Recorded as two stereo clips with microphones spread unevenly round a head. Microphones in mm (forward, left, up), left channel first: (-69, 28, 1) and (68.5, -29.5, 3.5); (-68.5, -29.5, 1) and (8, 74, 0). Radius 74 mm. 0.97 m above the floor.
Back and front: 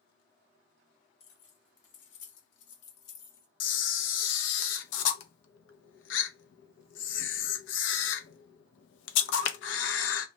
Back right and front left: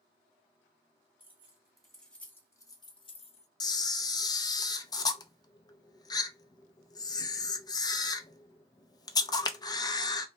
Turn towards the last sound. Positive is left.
turn(degrees=170)